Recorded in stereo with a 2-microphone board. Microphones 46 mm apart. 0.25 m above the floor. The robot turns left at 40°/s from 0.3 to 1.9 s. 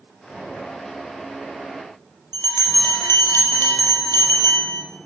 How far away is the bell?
About 4.5 m.